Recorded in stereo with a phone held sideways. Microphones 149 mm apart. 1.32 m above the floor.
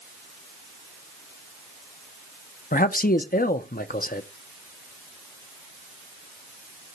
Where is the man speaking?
75° left (ahead or behind), 0.6 m.